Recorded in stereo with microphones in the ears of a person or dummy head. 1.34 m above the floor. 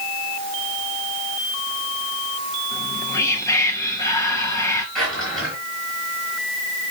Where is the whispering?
15° left (ahead or behind), 1.4 m.